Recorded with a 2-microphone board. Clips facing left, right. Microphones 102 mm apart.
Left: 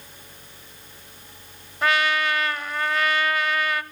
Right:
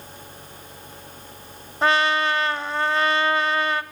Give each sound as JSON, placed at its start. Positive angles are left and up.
{"t": 1.8, "sound": "a trumpet", "side_deg": -30, "distance_m": 0.8}